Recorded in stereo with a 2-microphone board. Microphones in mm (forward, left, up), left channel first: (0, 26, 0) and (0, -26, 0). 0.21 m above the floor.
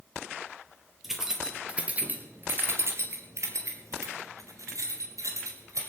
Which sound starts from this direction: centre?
Keys jangling, at 1.0 s.